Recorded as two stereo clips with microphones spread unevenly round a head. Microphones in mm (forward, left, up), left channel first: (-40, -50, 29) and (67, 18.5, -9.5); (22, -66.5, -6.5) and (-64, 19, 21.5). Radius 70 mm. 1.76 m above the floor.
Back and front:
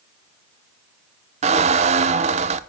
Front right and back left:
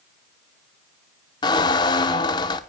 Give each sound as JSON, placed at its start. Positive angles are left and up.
{"t": 1.4, "sound": "a squeak", "azimuth_deg": 10, "distance_m": 0.7}